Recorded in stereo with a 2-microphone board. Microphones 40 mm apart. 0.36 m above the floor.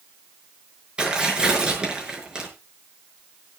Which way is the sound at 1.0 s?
20° right (ahead or behind).